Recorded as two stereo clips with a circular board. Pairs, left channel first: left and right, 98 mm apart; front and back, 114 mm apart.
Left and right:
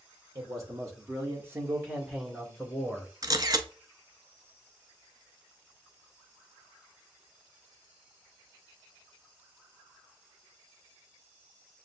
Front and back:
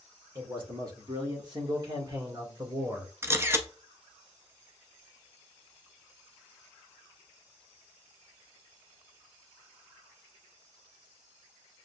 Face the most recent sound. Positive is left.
turn(degrees=-120)